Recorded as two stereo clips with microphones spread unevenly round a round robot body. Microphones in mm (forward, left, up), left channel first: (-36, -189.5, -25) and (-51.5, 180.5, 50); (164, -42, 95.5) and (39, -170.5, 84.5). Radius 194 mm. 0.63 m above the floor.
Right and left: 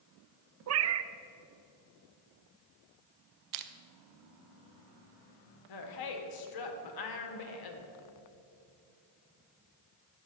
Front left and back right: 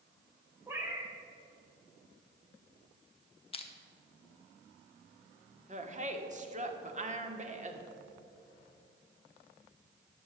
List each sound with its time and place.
0.7 s a cat meowing: 150° left, 0.5 m
3.5 s crushing: 90° left, 0.8 m
5.7 s a woman speaking: 90° right, 1.7 m